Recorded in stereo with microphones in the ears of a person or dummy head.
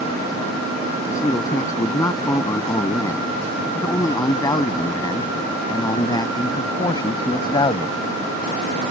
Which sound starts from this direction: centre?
A man speaking, at 1.1 s.